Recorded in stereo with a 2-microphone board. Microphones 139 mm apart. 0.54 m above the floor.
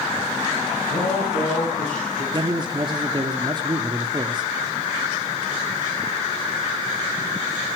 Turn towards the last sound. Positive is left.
turn(degrees=-35)  # may be behind; listen again after turning